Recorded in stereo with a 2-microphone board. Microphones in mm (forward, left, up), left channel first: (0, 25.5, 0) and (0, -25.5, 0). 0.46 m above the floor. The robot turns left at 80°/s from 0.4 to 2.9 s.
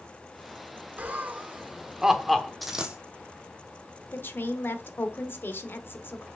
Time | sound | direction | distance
1.0 | laughter | 30° right (ahead or behind) | 1.1 m
2.6 | a dropped coin | centre (ahead or behind) | 1.8 m
4.1 | a woman speaking | 45° left (ahead or behind) | 1.1 m